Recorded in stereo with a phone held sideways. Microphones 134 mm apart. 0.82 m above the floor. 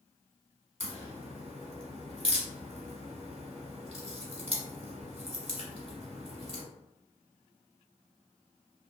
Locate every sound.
0.8 s a crack: 45° right (ahead or behind), 1.2 m